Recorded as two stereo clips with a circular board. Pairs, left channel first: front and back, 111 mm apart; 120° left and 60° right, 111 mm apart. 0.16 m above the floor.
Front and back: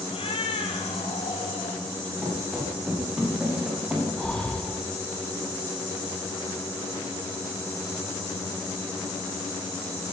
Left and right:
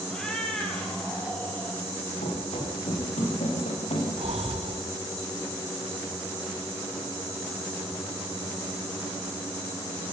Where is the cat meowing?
35° left, 3 m.